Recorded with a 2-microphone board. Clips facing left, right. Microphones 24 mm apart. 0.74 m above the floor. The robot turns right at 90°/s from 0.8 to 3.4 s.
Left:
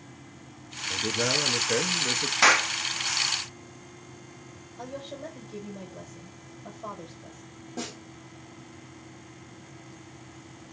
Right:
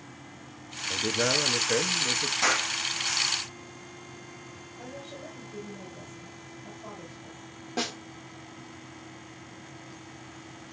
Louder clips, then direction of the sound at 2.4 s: Left 7 dB; 45° left (ahead or behind).